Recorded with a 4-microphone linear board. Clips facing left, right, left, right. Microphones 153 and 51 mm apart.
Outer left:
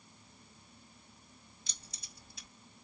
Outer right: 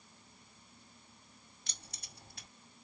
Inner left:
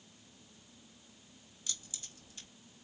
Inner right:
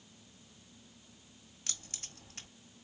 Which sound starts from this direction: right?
Keys jangling, at 1.7 s.